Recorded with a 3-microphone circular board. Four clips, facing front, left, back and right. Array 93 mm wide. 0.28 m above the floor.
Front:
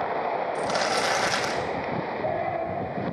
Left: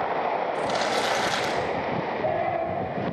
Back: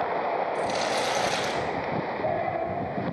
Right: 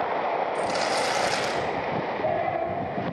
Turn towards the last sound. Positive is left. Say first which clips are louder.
# even, front 1 dB
turn(degrees=20)